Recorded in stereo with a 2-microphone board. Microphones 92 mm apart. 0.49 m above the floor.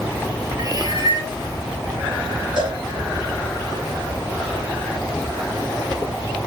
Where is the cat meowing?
40° right (ahead or behind), 2.5 m.